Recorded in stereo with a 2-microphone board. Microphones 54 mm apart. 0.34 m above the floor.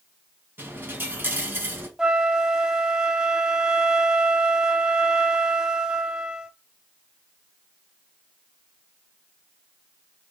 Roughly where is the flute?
Centre.